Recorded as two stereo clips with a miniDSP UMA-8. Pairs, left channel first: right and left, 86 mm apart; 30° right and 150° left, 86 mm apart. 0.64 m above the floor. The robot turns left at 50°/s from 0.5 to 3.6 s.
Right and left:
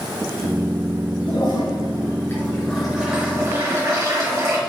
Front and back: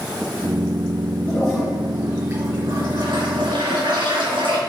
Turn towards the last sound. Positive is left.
turn(degrees=140)